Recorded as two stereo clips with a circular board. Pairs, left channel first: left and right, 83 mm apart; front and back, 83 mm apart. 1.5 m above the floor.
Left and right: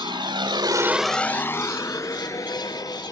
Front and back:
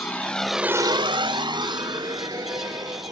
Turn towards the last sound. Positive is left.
turn(degrees=140)